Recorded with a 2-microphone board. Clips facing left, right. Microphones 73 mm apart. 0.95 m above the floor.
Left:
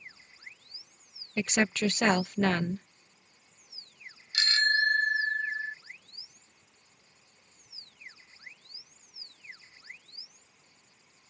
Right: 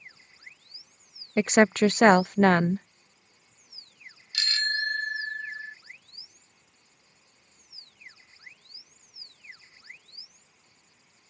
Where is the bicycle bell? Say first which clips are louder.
Left 4 dB; 25° left (ahead or behind).